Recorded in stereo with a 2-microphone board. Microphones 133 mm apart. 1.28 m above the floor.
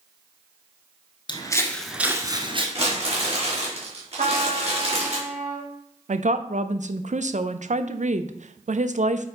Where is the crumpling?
50° right (ahead or behind), 3.5 m.